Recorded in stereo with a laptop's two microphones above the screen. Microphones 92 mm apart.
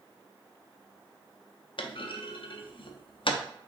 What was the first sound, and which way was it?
A clunk, 65° left (ahead or behind).